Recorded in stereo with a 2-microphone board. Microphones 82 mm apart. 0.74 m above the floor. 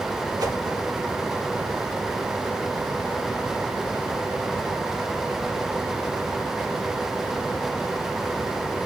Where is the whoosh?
50° right (ahead or behind), 1.9 m.